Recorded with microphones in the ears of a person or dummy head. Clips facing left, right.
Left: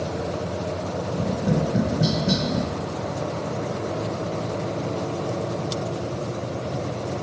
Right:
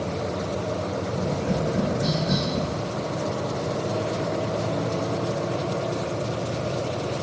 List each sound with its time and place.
1.1 s tapping: 40° left (ahead or behind), 1.1 m